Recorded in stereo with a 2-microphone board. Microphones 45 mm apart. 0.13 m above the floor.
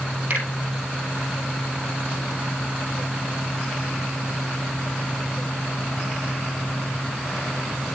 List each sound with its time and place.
0.3 s a finger snap: 55° right (ahead or behind), 3.5 m